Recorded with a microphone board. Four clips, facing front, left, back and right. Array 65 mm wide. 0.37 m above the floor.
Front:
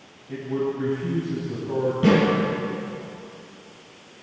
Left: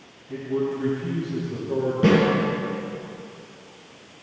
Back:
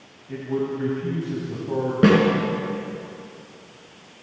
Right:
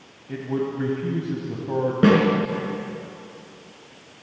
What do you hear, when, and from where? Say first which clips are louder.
0.3 s a man speaking: left 1 dB, even; 100° right, 2 m
2.0 s a snare drum: right 2 dB, back 3 dB; 145° right, 4 m